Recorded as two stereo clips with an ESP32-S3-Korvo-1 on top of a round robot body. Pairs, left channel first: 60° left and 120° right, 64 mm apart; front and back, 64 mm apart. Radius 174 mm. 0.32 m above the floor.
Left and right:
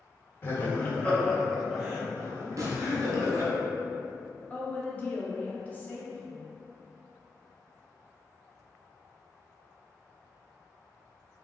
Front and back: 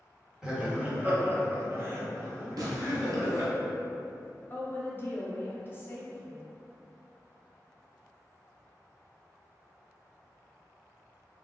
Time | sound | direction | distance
0.4 | laughter | 105° left | 1.2 m
2.6 | tearing paper | 160° right | 0.7 m
4.5 | a woman speaking | 15° left | 1.0 m